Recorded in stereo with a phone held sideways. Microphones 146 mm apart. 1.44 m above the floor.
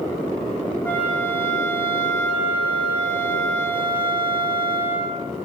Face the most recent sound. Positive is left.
turn(degrees=10)  # may be behind; listen again after turning